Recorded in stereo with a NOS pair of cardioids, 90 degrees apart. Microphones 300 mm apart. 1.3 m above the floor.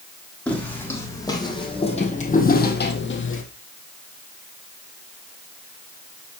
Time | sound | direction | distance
0.5 | footsteps | 5° left | 4.5 m